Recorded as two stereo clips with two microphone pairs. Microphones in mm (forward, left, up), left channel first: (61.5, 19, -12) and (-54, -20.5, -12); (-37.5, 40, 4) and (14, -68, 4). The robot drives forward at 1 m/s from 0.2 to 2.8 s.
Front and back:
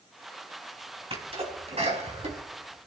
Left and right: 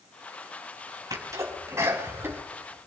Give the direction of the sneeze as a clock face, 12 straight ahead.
4 o'clock.